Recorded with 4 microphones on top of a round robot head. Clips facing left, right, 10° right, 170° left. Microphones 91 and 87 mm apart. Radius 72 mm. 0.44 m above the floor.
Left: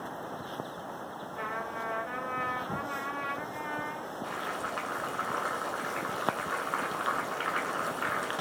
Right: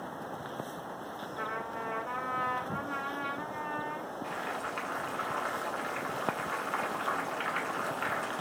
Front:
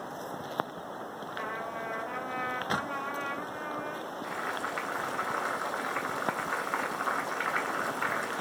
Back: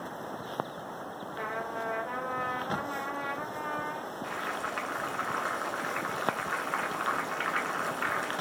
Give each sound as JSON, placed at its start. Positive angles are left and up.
{"t": 1.3, "sound": "a trumpet", "azimuth_deg": -160, "distance_m": 1.8}
{"t": 4.2, "sound": "boiling", "azimuth_deg": 60, "distance_m": 1.5}